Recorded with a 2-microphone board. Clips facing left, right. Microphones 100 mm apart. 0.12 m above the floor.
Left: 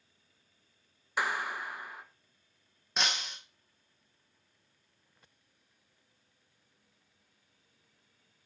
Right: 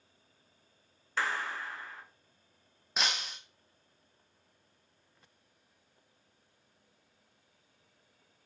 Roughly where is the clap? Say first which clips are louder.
Left 1 dB; centre.